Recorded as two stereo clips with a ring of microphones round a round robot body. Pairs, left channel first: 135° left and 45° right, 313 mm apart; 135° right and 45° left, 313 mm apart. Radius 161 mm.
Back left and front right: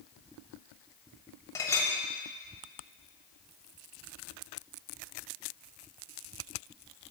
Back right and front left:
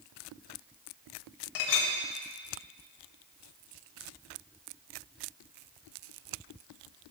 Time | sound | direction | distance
1.6 | a clink | 145° right | 0.9 m